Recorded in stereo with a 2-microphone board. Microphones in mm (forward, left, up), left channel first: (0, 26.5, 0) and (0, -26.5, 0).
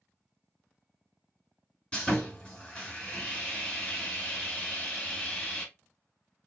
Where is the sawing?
20° left (ahead or behind), 1.9 m.